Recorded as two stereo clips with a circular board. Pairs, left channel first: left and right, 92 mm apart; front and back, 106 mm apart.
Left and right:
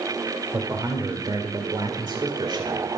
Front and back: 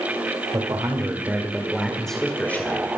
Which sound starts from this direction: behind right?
A man speaking, at 0.5 s.